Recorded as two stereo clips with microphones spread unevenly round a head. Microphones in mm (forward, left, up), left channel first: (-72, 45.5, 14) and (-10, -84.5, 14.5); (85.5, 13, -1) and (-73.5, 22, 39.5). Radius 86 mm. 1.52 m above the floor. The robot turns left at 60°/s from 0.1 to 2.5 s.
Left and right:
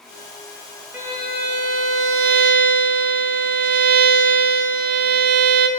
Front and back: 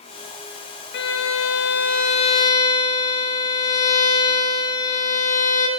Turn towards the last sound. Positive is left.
turn(degrees=-80)